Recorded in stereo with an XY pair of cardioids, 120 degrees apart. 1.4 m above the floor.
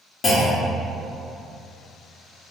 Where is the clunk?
40° left, 1.1 m.